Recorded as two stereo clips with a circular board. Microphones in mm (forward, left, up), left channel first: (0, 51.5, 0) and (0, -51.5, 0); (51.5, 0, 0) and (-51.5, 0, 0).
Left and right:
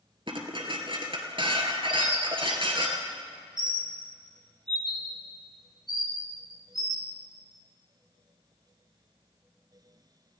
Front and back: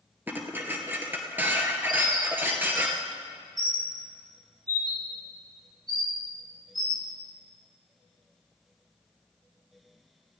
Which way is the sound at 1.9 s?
130° right.